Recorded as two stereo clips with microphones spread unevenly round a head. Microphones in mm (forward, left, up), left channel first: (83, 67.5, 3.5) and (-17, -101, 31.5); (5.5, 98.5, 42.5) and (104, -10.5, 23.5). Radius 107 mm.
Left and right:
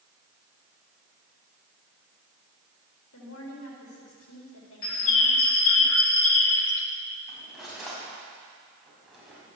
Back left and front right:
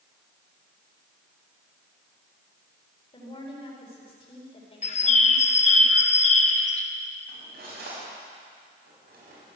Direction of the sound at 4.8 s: 95° left.